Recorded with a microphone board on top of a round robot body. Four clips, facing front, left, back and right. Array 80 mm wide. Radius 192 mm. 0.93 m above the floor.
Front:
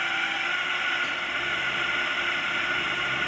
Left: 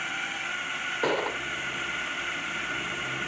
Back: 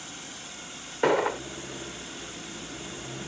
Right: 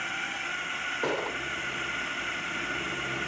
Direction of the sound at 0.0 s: 5° left.